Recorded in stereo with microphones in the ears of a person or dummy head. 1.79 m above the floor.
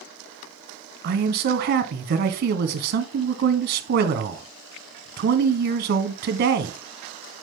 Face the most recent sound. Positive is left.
turn(degrees=-55)  # may be behind; listen again after turning